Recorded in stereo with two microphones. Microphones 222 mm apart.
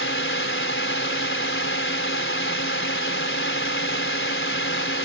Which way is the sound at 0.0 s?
65° left (ahead or behind).